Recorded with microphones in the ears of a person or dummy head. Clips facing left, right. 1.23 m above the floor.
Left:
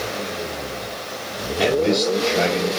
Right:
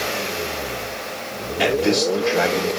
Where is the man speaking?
20° right (ahead or behind), 4 m.